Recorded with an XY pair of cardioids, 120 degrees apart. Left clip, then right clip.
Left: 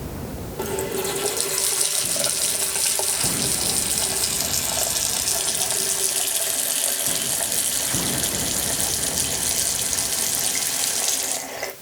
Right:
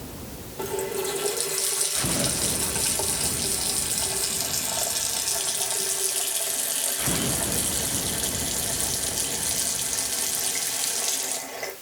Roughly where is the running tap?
Ahead left.